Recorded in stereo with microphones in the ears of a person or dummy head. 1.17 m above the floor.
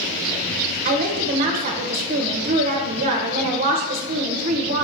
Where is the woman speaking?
40° right (ahead or behind), 0.7 m.